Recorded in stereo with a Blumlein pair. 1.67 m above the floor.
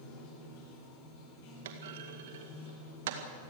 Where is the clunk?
55° right, 2.0 m.